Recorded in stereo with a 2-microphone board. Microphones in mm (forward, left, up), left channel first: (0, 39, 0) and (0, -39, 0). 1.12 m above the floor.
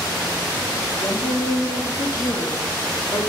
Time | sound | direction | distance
1.0 | a woman speaking | 90° left | 1.7 m